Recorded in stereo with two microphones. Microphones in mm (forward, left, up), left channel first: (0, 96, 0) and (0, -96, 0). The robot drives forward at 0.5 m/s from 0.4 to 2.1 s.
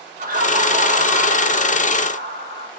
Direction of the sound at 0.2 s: 45° right (ahead or behind).